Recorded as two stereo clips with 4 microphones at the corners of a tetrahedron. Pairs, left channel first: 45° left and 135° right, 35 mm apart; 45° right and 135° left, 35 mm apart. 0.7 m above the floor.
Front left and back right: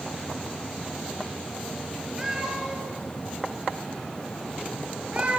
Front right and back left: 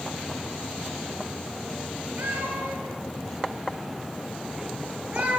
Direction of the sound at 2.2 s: 145° left.